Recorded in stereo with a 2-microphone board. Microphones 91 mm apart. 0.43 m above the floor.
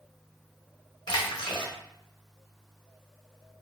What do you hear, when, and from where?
1.1 s a splash: 60° left (ahead or behind), 1.0 m